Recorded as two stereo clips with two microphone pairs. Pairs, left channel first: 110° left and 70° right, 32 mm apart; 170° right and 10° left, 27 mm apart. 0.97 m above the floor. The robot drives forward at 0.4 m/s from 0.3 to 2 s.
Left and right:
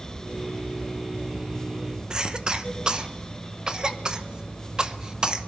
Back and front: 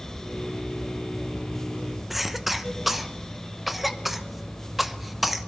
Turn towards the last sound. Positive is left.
turn(degrees=-75)